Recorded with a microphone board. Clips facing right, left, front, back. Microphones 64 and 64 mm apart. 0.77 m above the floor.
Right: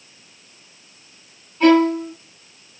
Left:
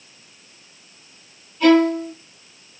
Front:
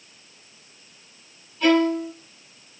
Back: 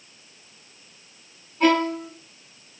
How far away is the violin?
About 6 m.